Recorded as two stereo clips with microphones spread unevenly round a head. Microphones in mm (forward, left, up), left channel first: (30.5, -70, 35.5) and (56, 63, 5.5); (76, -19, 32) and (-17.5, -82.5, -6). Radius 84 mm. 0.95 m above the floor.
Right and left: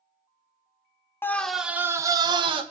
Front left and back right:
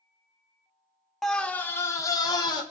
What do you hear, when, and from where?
1.2 s a scream: 175° left, 0.7 m; by 2.6 s 100° left, 1.1 m